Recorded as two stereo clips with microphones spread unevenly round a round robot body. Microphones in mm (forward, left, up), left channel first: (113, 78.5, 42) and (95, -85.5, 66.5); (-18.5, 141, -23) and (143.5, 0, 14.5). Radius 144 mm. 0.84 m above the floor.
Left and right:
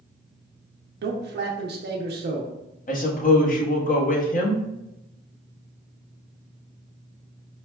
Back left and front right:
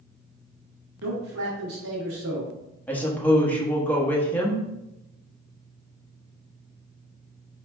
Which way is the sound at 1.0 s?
80° right.